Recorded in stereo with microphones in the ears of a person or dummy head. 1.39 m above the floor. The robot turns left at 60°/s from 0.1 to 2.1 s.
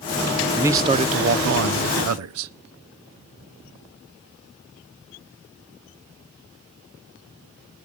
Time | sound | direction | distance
0.6 | a man speaking | 10° right | 0.5 m